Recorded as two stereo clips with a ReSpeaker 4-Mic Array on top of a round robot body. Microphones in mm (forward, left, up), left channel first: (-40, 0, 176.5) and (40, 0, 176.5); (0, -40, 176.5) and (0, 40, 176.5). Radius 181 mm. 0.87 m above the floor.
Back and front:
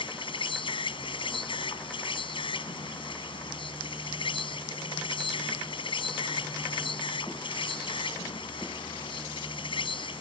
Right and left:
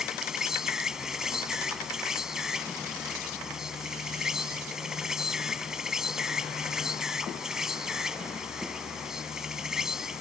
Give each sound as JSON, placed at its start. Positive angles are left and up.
{"t": 0.0, "sound": "an insect", "azimuth_deg": 175}